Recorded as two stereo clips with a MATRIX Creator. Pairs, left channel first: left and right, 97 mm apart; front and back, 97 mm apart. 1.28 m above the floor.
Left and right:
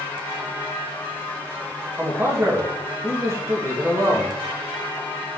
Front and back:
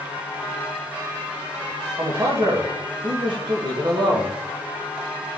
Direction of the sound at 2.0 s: 150° right.